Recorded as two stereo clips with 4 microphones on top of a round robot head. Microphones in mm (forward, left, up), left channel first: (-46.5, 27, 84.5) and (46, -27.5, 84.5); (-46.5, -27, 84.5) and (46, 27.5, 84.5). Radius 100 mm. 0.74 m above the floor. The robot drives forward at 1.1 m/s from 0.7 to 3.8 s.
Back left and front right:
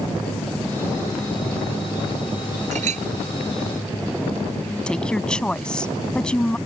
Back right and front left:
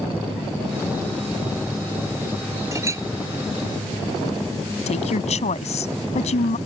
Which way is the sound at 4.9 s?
130° right.